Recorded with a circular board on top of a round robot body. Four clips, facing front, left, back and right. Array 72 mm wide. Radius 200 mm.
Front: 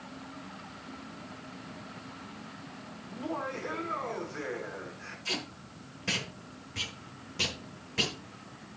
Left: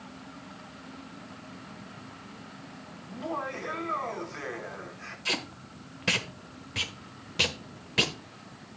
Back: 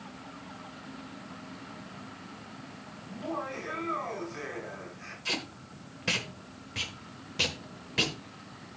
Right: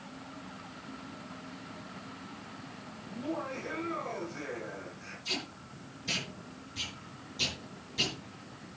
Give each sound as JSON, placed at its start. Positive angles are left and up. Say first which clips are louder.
{"t": 3.1, "sound": "laughter", "louder": "left 3 dB, even", "azimuth_deg": 105, "distance_m": 7.0}
{"t": 5.2, "sound": "tape being pulled", "louder": "left 6 dB, back 2 dB", "azimuth_deg": 105, "distance_m": 1.4}